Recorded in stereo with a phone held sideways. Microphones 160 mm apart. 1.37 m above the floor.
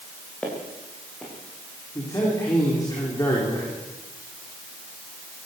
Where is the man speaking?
20° left (ahead or behind), 5 m.